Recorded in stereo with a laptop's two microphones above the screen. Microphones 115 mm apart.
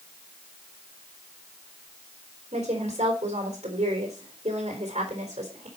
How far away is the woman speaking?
About 4 m.